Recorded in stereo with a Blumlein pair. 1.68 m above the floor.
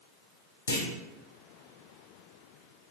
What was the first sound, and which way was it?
A clunk, 65° left.